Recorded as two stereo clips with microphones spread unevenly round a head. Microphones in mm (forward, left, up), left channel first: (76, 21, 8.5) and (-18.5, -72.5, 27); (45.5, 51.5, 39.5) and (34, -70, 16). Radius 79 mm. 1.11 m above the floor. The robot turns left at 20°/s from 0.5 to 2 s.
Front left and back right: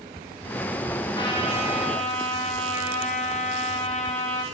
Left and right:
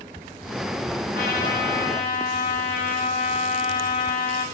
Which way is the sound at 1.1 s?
110° left.